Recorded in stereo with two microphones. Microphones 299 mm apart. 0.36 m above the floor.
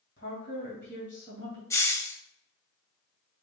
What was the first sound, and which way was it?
A woman speaking, 40° left (ahead or behind).